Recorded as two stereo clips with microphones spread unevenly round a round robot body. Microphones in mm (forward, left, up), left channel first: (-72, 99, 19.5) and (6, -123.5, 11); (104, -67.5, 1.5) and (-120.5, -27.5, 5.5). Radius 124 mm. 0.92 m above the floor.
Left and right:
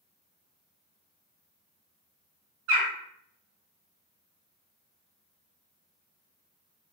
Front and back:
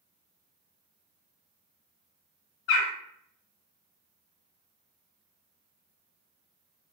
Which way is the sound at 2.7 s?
35° right.